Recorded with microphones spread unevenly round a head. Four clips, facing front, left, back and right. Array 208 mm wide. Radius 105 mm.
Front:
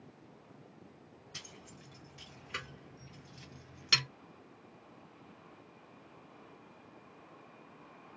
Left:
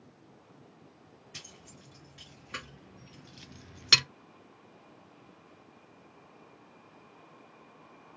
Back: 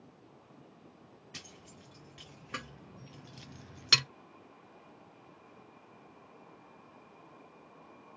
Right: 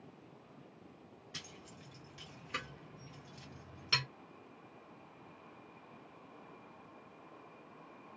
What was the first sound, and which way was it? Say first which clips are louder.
Keys jangling: right 1 dB, even; 170° right.